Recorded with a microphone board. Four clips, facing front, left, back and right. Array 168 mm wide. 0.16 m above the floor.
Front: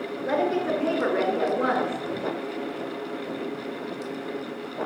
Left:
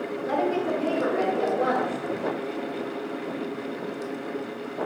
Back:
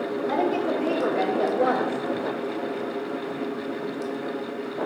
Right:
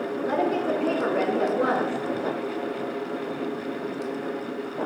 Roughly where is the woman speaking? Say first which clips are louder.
Even, front 1 dB; ahead.